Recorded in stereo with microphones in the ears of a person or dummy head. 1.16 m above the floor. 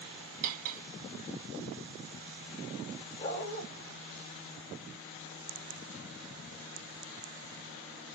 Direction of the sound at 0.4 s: 45° right (ahead or behind).